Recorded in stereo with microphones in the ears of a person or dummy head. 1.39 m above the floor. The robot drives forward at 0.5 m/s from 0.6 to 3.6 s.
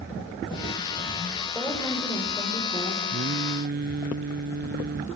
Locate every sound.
1.6 s a woman speaking: 15° left (ahead or behind), 6.5 m
3.1 s singing: 55° right (ahead or behind), 0.6 m; by 5.0 s 50° right (ahead or behind), 0.7 m